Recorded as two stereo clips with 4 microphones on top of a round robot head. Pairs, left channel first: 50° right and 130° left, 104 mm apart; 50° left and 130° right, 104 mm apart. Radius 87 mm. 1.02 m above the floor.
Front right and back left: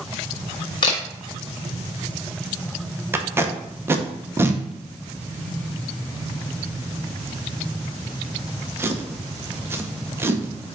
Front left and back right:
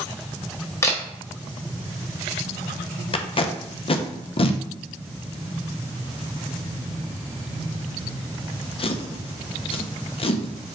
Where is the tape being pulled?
65° left, 0.6 m.